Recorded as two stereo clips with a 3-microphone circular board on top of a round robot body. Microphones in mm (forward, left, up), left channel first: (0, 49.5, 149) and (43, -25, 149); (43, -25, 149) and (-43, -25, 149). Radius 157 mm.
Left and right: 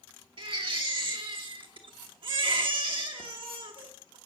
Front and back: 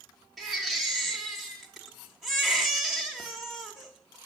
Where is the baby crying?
95° right, 1.1 m.